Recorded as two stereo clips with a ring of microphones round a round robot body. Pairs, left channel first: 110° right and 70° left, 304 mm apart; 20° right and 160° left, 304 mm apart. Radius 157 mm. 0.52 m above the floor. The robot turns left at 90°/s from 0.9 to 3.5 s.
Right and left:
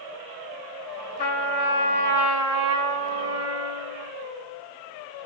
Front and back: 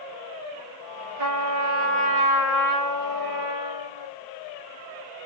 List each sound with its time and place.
1.2 s a trumpet: 165° right, 1.8 m; by 4.1 s 15° right, 1.8 m